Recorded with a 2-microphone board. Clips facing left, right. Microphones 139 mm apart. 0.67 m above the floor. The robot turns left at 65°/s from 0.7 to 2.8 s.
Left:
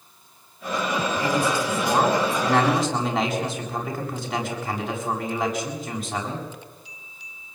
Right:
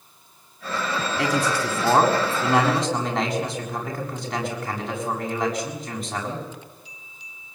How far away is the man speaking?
About 7 m.